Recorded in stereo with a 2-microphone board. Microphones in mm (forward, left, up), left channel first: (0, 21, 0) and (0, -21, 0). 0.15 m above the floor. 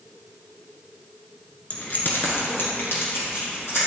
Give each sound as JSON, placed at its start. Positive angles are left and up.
{"t": 1.7, "sound": "keys jangling", "side_deg": 30, "distance_m": 1.2}